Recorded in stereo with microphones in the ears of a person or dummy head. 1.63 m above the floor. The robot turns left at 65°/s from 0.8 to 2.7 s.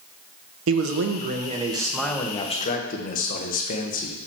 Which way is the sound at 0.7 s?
105° right.